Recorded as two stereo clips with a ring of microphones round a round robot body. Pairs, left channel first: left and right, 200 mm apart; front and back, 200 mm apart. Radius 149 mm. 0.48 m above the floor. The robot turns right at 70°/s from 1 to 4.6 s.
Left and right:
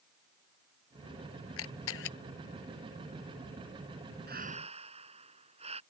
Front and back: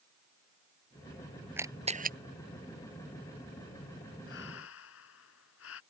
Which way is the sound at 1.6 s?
100° left.